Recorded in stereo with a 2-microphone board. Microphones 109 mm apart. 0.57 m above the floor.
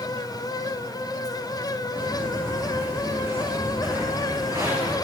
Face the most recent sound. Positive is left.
turn(degrees=-30)  # may be behind; listen again after turning